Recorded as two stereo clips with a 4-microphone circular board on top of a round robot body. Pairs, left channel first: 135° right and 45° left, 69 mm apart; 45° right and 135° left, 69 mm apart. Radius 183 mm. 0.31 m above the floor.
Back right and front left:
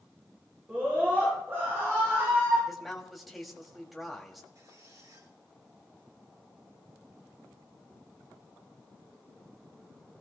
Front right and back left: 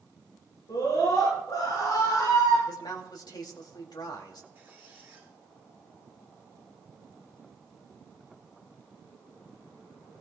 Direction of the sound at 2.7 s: 45° right.